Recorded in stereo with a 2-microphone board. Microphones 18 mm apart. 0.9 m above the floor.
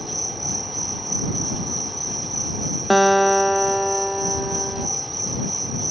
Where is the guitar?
Centre (ahead or behind).